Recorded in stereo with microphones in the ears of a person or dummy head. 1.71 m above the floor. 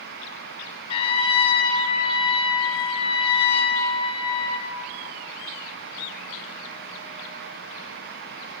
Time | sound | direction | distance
0.9 | a trumpet | 30° left (ahead or behind) | 5 m